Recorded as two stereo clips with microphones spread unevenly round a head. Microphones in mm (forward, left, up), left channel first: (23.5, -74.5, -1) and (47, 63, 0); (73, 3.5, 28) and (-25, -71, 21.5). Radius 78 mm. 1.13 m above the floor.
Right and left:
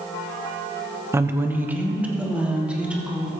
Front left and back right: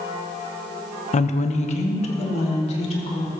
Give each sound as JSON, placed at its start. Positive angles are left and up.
{"t": 1.1, "sound": "a woman speaking", "azimuth_deg": 10, "distance_m": 0.9}